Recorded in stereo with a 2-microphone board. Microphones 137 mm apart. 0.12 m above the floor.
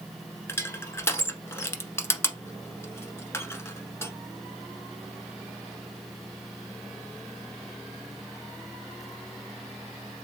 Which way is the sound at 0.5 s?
20° left (ahead or behind).